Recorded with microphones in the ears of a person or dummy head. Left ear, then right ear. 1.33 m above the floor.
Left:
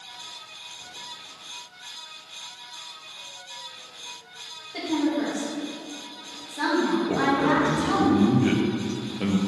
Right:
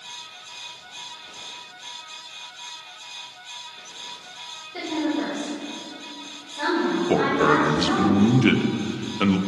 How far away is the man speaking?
About 0.6 m.